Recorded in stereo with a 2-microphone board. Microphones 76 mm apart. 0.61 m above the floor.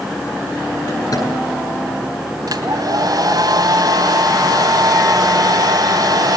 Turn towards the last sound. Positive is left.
turn(degrees=-55)  # may be behind; listen again after turning